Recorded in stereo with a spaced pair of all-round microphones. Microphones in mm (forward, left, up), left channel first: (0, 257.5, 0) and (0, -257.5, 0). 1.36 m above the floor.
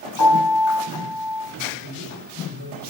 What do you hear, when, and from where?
0.2 s a piano: 40° left (ahead or behind), 7 m
1.8 s a man speaking: 60° right (ahead or behind), 5.5 m